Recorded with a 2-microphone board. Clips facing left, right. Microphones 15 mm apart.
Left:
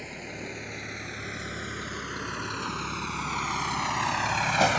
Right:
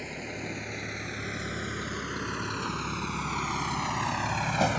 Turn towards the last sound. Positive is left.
turn(degrees=30)  # may be behind; listen again after turning